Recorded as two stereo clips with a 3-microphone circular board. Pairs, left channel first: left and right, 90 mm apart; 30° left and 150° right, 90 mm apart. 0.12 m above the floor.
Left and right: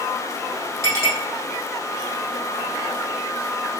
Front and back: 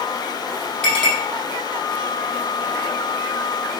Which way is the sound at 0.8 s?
40° right.